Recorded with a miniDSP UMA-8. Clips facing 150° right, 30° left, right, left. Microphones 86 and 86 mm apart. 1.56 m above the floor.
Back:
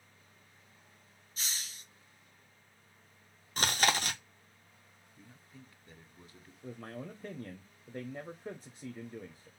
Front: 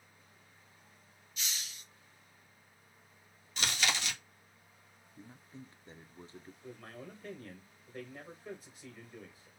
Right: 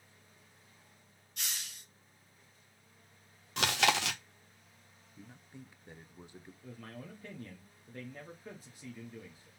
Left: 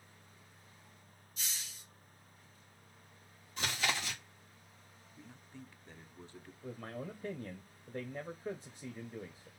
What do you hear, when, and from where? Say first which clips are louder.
1.4 s a hiss: even, right 3 dB; 100° right, 0.8 m
3.6 s chewing: back 5 dB, right 7 dB; 100° right, 0.7 m
5.2 s a man speaking: front 5 dB, right 1 dB; 20° right, 0.6 m
6.6 s a man speaking: back 6 dB, left 5 dB; 150° left, 0.8 m